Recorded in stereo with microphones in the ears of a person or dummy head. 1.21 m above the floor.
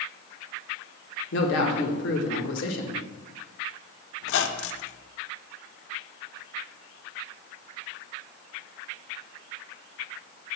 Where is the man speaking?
60° left (ahead or behind), 1.4 m.